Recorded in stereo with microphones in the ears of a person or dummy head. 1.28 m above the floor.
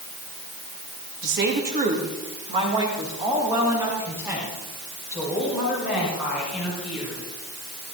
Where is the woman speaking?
45° right (ahead or behind), 2.5 m; by 7.3 s 5° left (ahead or behind), 8 m.